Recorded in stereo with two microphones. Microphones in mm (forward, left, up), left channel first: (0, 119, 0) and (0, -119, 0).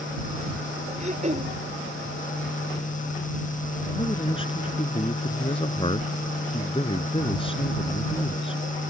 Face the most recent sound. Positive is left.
turn(degrees=25)  # may be behind; listen again after turning